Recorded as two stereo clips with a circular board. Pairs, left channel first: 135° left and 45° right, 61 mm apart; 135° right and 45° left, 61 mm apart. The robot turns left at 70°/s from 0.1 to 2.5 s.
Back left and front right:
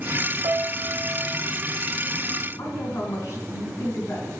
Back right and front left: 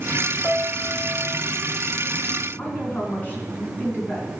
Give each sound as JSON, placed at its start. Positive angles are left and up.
{"t": 0.4, "sound": "a piano", "azimuth_deg": -50, "distance_m": 0.5}
{"t": 2.6, "sound": "a woman speaking", "azimuth_deg": 165, "distance_m": 3.0}